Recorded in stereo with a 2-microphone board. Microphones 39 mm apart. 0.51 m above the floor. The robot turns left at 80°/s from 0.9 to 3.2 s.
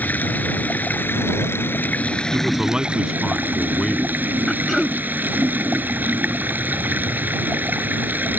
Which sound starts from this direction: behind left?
Running water, at 0.0 s.